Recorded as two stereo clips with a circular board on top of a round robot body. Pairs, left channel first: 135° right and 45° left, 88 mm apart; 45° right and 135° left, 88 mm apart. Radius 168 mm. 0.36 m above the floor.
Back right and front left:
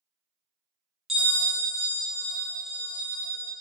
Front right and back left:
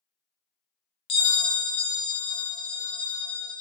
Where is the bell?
40° right, 0.6 m.